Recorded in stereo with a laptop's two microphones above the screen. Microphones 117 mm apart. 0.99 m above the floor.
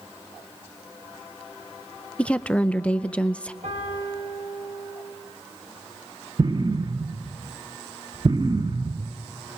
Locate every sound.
2.2 s a woman speaking: 10° left (ahead or behind), 0.5 m
3.6 s a piano: 80° right, 4.5 m
6.4 s an explosion: 40° right (ahead or behind), 0.5 m